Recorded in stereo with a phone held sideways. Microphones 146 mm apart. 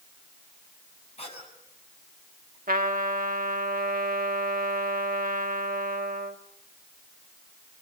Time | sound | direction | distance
1.2 | a cough | 45° left (ahead or behind) | 7 m
2.7 | a trumpet | 85° right | 1.4 m